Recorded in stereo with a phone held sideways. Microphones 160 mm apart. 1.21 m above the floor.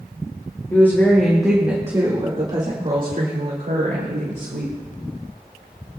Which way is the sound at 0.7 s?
15° left (ahead or behind).